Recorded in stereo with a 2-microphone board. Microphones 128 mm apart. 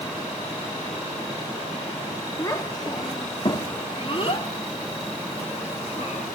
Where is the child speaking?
25° left (ahead or behind), 2 m; by 6.2 s 60° left (ahead or behind), 3.5 m.